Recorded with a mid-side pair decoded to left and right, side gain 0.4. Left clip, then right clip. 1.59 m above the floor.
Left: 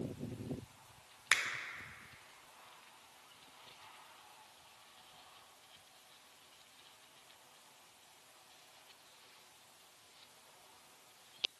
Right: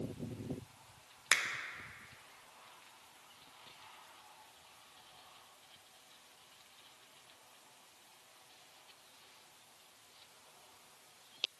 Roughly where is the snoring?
No snoring in this recording.